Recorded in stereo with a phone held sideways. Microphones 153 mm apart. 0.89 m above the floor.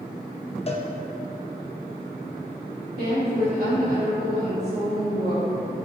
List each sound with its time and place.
0.7 s a cowbell: 40° left (ahead or behind), 0.8 m
3.0 s a woman speaking: 75° right (ahead or behind), 2 m